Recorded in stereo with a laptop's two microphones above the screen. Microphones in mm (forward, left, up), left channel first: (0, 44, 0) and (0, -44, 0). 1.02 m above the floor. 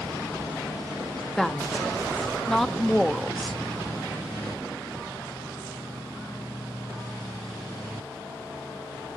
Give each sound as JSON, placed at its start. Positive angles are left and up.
{"t": 1.4, "sound": "a woman speaking", "side_deg": 5, "distance_m": 1.3}